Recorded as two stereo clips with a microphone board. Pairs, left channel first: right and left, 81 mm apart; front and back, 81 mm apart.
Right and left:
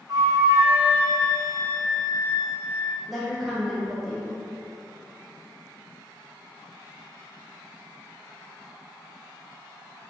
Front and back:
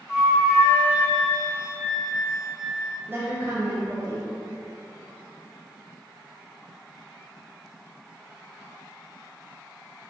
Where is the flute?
100° left, 0.8 m.